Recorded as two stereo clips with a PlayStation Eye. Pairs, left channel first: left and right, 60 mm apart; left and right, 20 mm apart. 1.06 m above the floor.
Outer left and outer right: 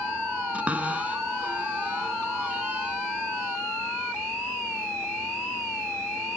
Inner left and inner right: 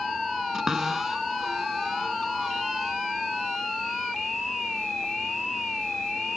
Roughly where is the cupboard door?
Right.